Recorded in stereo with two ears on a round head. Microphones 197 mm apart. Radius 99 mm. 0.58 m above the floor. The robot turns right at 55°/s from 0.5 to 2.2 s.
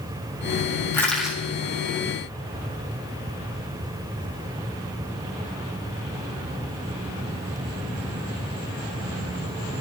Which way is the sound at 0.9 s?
15° left (ahead or behind).